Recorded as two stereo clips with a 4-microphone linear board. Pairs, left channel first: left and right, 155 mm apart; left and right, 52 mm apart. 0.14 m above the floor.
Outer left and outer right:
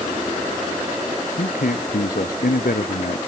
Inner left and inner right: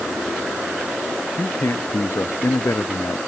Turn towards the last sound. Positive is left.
turn(degrees=75)  # may be behind; listen again after turning